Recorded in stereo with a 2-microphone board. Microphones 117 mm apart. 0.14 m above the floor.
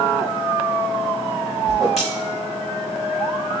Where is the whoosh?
Centre (ahead or behind), 4 m.